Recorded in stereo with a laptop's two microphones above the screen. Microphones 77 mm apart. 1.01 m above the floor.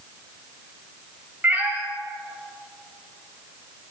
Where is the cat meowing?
25° right (ahead or behind), 1.1 m.